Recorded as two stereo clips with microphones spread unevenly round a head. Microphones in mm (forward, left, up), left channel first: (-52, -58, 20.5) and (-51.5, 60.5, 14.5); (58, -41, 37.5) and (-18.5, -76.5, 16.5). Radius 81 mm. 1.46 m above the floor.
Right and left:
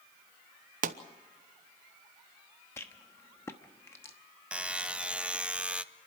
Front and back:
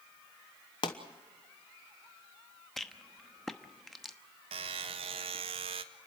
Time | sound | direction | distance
0.8 | a pop | 85° left | 1.0 m
2.8 | a rattle | 35° right | 0.9 m
4.5 | a buzzer | 170° left | 0.8 m